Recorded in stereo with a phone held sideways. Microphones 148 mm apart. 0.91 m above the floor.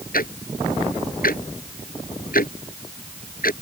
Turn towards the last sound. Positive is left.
turn(degrees=75)  # may be behind; listen again after turning